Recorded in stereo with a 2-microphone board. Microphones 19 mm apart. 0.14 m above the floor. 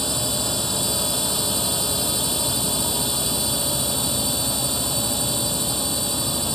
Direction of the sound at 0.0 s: 15° left (ahead or behind).